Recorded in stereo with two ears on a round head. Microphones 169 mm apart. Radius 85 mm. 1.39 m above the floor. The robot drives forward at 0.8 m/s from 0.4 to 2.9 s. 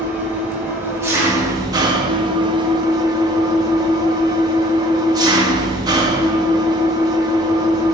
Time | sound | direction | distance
0.0 | an engine running | 10° right (ahead or behind) | 1.7 m